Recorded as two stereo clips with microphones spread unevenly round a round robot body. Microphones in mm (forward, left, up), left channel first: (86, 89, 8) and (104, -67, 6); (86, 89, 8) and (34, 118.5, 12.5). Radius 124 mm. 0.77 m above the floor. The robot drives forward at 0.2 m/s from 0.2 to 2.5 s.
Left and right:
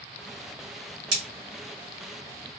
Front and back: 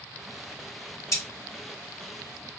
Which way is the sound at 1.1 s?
90° right.